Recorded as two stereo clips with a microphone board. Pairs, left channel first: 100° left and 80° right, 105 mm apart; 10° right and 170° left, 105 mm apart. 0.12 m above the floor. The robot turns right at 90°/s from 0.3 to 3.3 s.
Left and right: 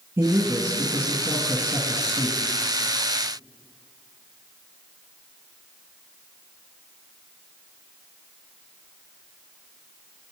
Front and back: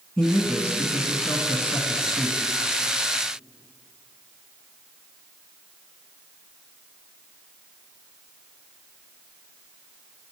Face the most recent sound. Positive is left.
turn(degrees=180)